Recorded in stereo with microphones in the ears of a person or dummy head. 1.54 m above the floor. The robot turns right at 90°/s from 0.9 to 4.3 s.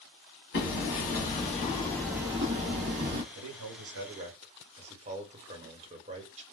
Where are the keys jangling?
No keys jangling in this recording.